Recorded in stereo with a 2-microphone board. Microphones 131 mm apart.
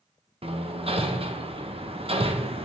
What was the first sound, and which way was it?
Hammering, 45° right (ahead or behind).